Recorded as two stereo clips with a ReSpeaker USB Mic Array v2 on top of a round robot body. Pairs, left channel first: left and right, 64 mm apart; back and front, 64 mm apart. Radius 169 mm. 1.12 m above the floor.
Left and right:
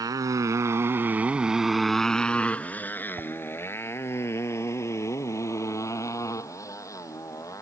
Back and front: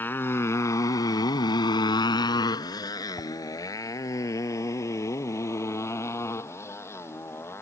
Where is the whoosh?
135° right.